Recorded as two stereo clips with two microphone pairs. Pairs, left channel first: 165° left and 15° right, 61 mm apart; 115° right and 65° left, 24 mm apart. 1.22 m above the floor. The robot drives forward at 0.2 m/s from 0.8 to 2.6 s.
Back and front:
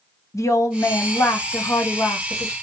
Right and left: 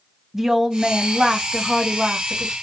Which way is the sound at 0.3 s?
140° left.